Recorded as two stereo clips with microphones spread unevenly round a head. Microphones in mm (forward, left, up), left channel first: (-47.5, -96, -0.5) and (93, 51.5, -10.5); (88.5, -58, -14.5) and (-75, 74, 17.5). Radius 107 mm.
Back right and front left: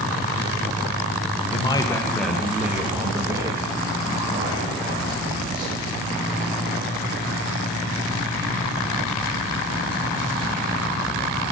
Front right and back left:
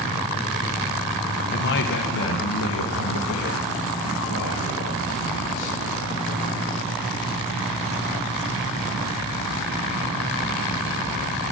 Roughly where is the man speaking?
Right.